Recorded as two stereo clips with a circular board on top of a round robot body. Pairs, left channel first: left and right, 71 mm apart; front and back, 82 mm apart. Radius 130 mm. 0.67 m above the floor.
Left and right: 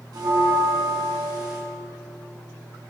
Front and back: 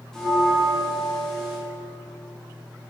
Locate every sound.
0.1 s a bell: 85° right, 2.5 m